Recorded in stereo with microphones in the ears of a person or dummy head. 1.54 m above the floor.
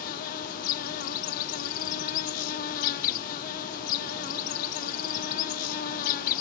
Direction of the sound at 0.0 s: 55° left (ahead or behind).